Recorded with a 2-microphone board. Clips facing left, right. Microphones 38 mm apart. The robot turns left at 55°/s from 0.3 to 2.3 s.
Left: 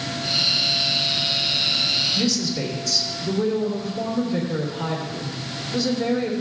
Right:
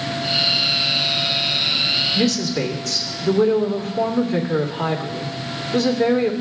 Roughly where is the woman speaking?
Right.